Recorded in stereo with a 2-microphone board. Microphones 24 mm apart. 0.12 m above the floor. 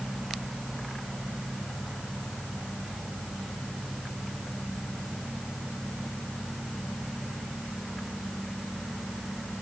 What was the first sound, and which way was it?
Only background noise.